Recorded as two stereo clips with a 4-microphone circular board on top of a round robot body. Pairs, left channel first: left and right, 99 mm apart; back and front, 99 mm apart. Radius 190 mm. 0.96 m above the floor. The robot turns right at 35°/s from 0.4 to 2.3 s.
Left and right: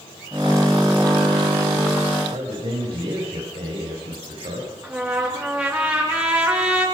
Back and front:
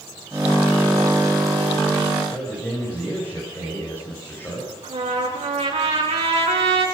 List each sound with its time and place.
2.3 s a man speaking: 115° right, 6 m
4.8 s a trumpet: 15° right, 6 m